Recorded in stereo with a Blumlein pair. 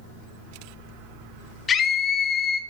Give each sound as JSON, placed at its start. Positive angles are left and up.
{"t": 1.7, "sound": "a scream", "azimuth_deg": 20, "distance_m": 1.7}